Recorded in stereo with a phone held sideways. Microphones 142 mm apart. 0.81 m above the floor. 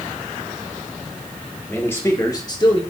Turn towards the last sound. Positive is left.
turn(degrees=35)  # may be behind; listen again after turning